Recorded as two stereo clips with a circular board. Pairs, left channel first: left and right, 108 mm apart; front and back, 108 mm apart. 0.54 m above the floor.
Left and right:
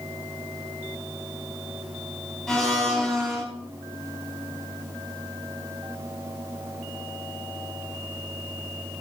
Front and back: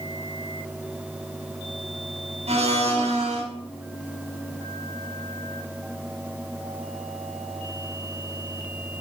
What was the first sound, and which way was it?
A blender, 175° left.